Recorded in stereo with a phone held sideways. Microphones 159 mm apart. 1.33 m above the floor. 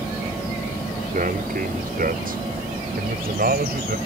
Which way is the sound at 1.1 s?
60° right (ahead or behind).